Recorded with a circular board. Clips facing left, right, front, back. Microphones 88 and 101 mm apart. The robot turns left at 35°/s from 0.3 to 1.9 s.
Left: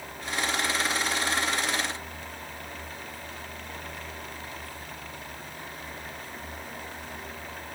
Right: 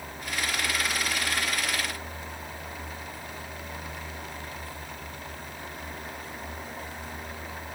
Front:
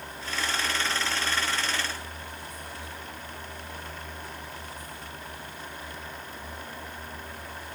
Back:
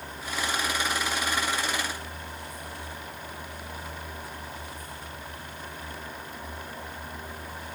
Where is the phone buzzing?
No phone buzzing in this recording.